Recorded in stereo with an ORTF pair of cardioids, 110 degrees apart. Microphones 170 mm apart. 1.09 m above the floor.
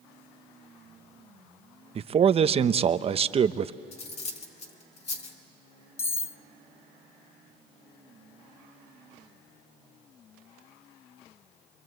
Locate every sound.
1.9 s a man speaking: 35° right, 0.8 m
3.9 s cutlery clinking: 40° left, 2.5 m
6.0 s cutlery clinking: 15° left, 0.5 m